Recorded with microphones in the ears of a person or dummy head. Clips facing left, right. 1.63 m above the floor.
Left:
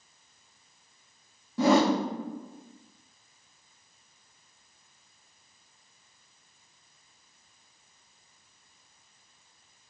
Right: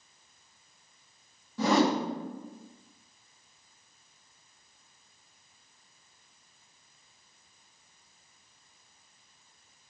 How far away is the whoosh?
About 0.7 m.